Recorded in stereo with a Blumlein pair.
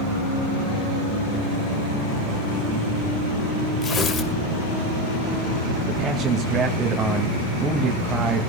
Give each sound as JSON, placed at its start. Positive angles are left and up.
{"t": 3.8, "sound": "tearing paper", "azimuth_deg": 25, "distance_m": 2.5}
{"t": 5.8, "sound": "a man speaking", "azimuth_deg": -20, "distance_m": 2.0}